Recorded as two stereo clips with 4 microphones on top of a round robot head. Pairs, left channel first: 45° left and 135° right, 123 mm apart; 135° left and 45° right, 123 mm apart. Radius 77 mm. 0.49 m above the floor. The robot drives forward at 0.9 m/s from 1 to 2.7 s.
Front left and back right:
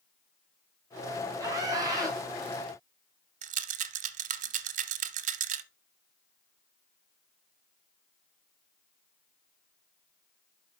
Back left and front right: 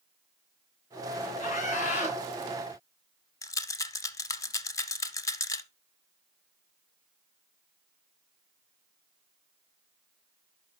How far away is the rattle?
About 0.6 m.